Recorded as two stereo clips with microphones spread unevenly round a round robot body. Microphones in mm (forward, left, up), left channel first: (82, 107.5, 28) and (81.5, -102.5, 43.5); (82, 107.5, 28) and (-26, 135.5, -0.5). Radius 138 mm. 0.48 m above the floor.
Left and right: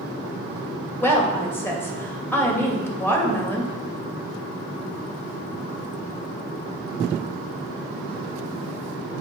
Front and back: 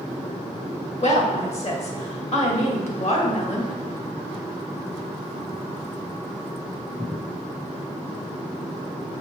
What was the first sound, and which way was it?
A woman speaking, 10° left.